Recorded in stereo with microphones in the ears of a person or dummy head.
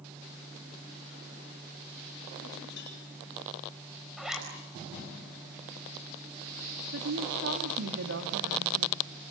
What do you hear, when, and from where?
2.8 s a cowbell: 55° left (ahead or behind), 8.5 m
4.2 s a zipper: 5° right (ahead or behind), 4.5 m
6.9 s a woman speaking: 75° right (ahead or behind), 3 m